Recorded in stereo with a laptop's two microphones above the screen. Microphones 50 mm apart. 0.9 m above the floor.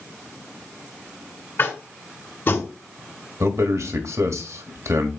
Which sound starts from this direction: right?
A man speaking, at 3.4 s.